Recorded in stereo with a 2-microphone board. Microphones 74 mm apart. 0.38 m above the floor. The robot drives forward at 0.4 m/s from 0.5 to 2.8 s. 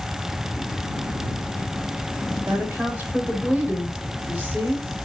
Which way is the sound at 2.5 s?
25° right (ahead or behind).